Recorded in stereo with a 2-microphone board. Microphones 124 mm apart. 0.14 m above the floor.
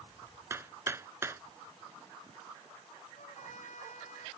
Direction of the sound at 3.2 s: 80° left.